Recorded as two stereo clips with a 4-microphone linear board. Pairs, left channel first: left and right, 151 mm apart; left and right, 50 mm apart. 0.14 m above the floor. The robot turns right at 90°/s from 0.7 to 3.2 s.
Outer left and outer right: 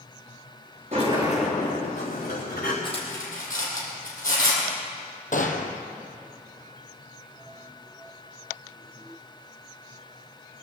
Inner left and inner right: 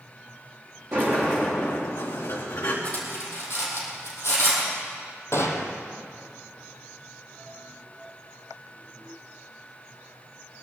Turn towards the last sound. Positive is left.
turn(degrees=60)  # may be behind; listen again after turning